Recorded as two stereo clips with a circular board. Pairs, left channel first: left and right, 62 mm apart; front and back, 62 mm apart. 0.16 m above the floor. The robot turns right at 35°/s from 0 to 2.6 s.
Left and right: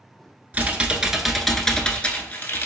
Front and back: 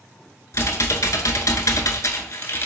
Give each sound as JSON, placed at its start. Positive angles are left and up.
{"t": 0.5, "sound": "typing on a keyboard", "azimuth_deg": -30, "distance_m": 0.5}